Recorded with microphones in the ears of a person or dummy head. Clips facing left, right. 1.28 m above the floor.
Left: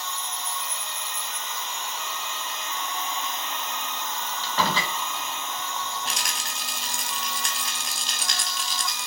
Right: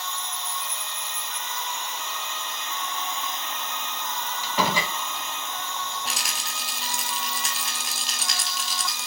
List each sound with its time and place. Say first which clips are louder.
0.0 s an insect: even; 50° right (ahead or behind), 5.5 m
4.4 s a door slam: right 1 dB; 10° right (ahead or behind), 2.5 m
6.0 s a rattle: left 1 dB; centre (ahead or behind), 1.3 m